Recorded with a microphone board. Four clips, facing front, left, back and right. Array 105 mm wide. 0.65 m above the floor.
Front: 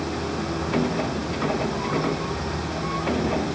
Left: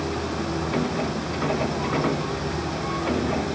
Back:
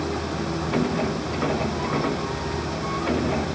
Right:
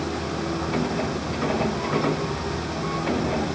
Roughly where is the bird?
I don't hear a bird.